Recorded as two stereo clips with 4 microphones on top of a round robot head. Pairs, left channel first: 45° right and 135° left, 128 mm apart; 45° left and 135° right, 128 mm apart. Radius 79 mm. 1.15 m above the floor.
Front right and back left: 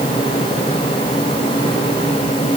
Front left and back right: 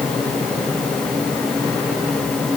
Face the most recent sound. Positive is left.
No sound to turn to.